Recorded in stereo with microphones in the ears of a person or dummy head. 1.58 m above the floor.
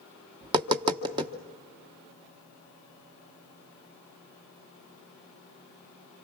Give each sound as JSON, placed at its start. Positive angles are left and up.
{"t": 0.4, "sound": "tapping", "side_deg": -20, "distance_m": 0.9}